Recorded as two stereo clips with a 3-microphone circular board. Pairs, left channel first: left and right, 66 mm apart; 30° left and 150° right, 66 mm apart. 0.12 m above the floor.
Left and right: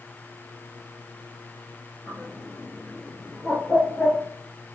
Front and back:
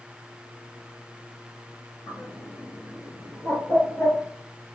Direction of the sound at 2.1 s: 35° left.